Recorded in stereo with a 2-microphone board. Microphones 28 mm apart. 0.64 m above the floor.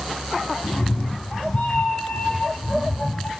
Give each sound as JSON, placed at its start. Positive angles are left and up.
{"t": 0.6, "sound": "a cat meowing", "side_deg": 55, "distance_m": 0.9}